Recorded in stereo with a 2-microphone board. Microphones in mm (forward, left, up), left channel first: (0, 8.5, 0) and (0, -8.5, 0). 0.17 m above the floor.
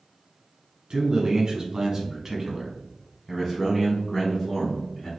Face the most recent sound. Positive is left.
turn(degrees=30)  # may be behind; listen again after turning